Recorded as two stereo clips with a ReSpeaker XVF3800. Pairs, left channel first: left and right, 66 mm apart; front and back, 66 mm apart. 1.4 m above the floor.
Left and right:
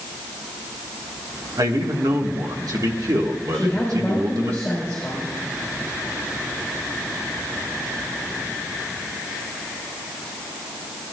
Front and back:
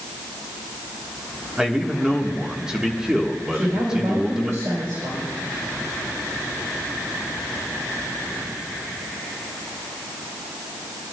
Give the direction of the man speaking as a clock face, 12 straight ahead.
3 o'clock.